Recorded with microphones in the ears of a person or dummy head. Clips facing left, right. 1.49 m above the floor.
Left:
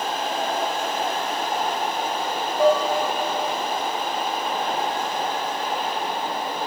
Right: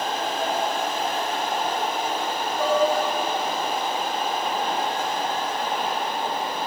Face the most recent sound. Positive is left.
turn(degrees=75)  # may be behind; listen again after turning